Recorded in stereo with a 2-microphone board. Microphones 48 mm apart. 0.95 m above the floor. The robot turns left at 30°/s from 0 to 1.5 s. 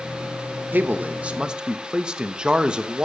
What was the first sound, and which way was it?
A man speaking, 40° right (ahead or behind).